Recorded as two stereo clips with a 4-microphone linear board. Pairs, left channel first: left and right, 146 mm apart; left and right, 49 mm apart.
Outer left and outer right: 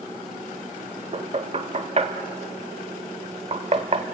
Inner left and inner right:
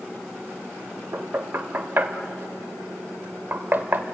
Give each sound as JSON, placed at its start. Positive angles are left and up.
{"t": 1.1, "sound": "knocking", "side_deg": -45, "distance_m": 1.3}